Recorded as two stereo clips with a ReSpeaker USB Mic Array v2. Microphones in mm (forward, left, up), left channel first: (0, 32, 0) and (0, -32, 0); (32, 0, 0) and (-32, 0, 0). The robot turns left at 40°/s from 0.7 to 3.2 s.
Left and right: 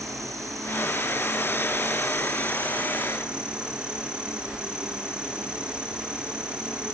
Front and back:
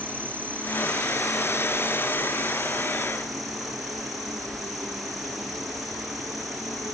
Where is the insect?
65° right, 3 m; by 7.0 s 165° right, 3 m.